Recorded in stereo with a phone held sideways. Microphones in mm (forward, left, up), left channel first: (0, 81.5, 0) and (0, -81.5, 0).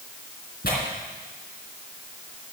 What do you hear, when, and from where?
0.6 s tearing paper: 70° left (ahead or behind), 3 m